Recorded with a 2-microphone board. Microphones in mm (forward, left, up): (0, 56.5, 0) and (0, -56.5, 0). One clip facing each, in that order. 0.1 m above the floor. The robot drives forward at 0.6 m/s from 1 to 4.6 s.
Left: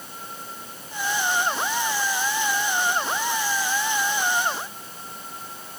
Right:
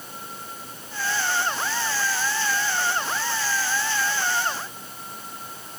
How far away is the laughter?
I don't hear laughter.